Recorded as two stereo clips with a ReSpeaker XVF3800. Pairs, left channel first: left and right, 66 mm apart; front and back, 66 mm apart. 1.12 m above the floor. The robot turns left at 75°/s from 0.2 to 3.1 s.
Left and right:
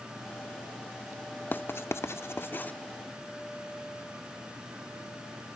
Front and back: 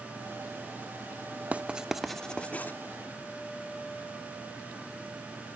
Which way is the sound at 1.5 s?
130° left.